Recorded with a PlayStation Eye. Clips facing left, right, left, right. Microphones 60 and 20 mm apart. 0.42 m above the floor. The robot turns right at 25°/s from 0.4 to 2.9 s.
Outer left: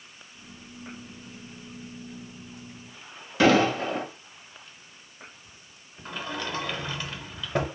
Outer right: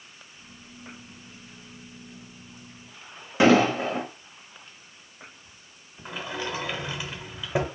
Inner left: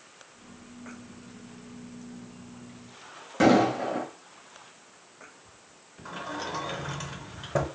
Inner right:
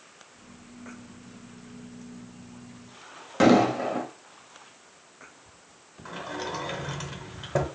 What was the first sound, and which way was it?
An explosion, 25° right (ahead or behind).